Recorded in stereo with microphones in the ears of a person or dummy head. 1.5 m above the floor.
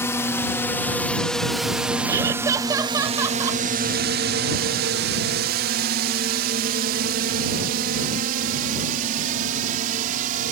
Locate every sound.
0.0 s a drone: 10° left (ahead or behind); by 10.5 s 50° right (ahead or behind)
2.1 s laughter: 20° right (ahead or behind)